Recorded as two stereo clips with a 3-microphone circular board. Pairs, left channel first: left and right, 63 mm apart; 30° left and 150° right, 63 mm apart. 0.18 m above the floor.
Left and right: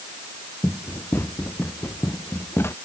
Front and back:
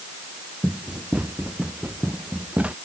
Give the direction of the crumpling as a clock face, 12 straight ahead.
I don't hear crumpling.